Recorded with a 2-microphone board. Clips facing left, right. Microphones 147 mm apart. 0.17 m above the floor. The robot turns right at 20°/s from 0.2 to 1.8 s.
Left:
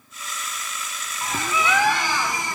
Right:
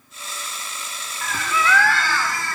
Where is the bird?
25° left (ahead or behind), 0.6 m; by 2.6 s 20° left (ahead or behind), 0.6 m.